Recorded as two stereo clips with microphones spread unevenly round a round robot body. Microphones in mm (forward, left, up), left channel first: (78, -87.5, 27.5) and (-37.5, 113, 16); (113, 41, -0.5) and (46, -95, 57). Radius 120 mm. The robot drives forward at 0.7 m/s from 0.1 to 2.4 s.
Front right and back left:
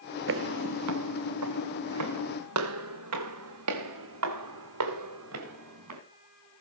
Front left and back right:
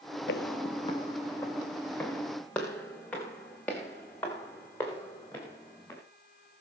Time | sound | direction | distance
0.3 | footsteps | 110° left | 0.6 m